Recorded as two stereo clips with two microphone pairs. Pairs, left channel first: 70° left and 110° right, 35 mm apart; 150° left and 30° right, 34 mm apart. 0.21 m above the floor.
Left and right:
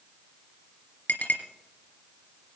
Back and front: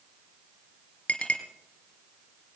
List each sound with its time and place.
1.1 s a clink: 100° left, 2.5 m